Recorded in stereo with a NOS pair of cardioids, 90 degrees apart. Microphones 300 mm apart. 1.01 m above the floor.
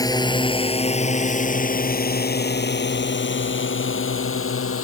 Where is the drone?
10° left; by 4.8 s 45° left.